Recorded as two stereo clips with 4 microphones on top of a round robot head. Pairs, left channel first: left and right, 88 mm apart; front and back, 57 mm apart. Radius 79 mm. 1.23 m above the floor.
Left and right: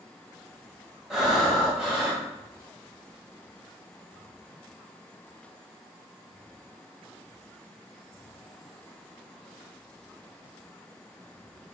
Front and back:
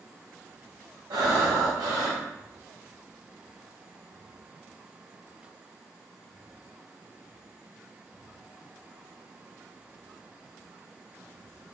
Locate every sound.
1.1 s breathing: 175° right, 0.8 m